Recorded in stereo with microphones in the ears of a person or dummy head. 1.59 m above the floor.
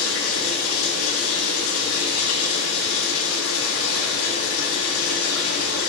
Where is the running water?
80° left, 3.5 m.